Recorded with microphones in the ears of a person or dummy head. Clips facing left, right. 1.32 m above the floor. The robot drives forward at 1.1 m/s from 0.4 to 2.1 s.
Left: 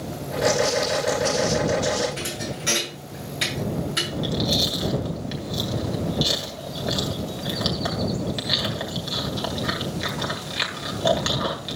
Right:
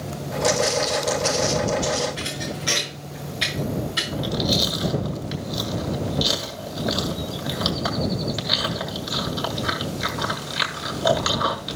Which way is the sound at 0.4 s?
25° right (ahead or behind).